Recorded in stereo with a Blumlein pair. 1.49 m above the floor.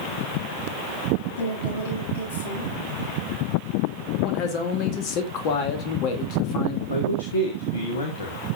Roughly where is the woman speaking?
Ahead left.